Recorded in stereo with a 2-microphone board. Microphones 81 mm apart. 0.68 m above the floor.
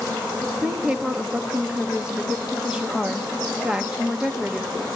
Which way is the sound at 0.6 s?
10° right (ahead or behind).